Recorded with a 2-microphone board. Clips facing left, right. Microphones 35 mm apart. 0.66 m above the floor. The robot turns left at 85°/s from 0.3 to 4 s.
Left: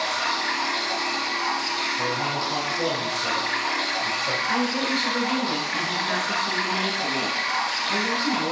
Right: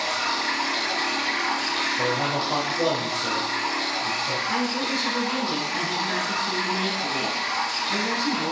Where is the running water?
30° left, 4 m; by 8.5 s 75° left, 4 m.